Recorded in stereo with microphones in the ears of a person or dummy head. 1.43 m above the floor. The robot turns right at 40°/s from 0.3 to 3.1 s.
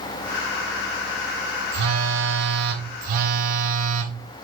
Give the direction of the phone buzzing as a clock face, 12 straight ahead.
4 o'clock.